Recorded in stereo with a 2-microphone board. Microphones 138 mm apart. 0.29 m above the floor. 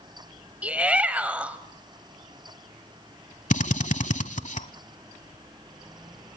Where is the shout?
10° right (ahead or behind), 1.2 m.